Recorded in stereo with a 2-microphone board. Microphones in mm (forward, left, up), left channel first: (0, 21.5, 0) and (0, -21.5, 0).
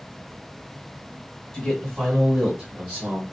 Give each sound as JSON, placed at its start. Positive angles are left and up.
{"t": 1.5, "sound": "a man speaking", "side_deg": 15, "distance_m": 1.5}